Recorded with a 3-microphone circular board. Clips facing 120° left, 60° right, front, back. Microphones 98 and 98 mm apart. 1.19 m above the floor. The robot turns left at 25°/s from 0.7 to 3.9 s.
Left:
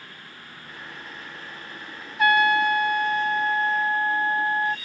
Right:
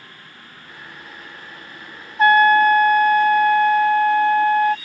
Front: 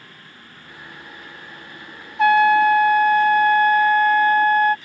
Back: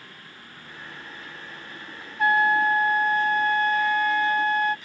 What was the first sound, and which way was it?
A trumpet, straight ahead.